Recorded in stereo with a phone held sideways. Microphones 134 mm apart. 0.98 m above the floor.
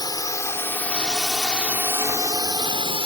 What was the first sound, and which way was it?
A drone, 30° left (ahead or behind).